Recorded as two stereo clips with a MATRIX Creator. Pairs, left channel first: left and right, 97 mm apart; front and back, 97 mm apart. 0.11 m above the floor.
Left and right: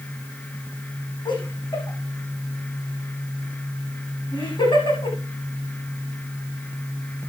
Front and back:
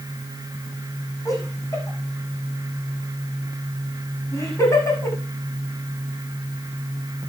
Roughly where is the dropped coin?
I don't hear a dropped coin.